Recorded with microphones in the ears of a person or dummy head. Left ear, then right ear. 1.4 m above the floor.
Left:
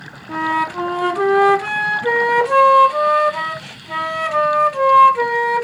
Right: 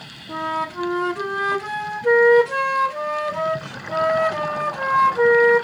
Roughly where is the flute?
Left.